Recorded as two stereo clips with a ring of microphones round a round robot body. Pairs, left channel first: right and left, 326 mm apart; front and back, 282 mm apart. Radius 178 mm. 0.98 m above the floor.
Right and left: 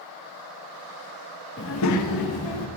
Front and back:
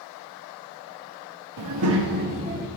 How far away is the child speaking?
About 0.7 m.